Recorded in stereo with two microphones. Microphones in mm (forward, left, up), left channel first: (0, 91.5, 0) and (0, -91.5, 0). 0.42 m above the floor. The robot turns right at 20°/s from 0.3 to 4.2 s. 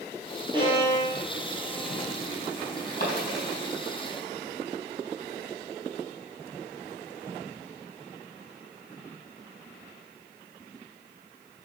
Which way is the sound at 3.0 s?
50° left (ahead or behind).